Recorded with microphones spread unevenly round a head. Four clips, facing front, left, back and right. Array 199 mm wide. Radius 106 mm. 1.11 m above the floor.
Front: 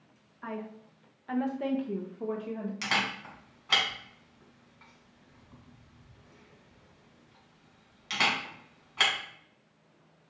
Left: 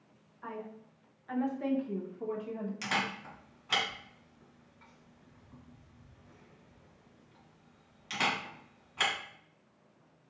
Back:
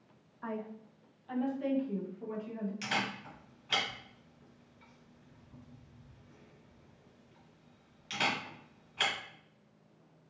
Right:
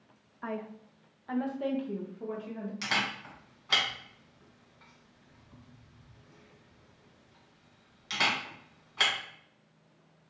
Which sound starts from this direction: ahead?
A camera shutter, at 2.8 s.